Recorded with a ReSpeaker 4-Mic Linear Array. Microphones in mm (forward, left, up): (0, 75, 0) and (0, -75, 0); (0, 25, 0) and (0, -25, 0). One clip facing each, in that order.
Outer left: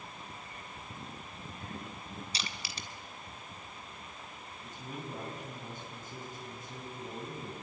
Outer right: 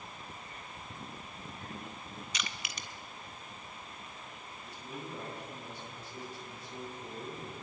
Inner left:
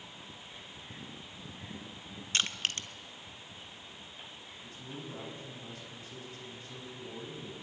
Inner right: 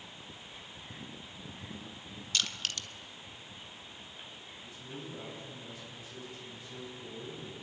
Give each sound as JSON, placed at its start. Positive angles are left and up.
{"t": 2.3, "sound": "crushing", "side_deg": 30, "distance_m": 1.5}
{"t": 4.6, "sound": "a man speaking", "side_deg": 45, "distance_m": 8.0}